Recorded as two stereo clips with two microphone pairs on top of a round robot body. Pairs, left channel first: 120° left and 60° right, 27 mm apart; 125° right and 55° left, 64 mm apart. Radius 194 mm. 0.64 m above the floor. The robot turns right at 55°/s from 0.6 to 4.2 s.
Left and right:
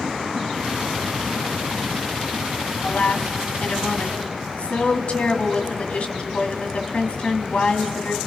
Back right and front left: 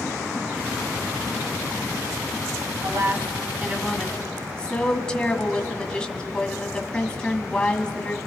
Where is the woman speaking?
85° left, 1.9 m; by 8.2 s 160° left, 1.9 m.